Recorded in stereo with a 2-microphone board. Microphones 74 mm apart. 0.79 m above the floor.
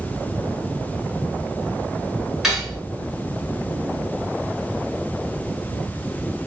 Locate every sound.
2.4 s cutlery clinking: 5° right (ahead or behind), 5.5 m